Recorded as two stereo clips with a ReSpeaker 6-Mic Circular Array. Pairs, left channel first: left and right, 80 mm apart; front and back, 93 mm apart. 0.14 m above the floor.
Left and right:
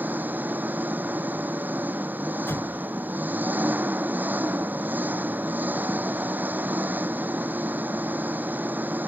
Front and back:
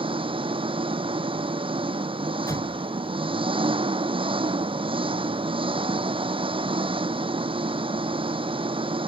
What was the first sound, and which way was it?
An engine running, 160° right.